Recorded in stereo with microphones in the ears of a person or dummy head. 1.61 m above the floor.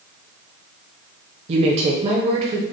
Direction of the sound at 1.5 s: 40° right (ahead or behind).